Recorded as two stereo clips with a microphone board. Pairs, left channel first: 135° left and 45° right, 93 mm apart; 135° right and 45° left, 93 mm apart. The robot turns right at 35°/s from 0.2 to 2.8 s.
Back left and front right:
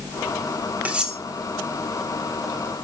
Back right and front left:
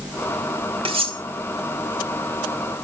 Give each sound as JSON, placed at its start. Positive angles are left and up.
{"t": 0.8, "sound": "cutlery clinking", "azimuth_deg": 30, "distance_m": 1.6}